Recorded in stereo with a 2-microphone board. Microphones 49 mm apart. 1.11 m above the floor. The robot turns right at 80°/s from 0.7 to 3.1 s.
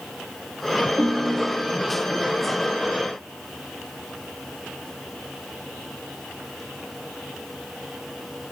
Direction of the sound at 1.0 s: 160° right.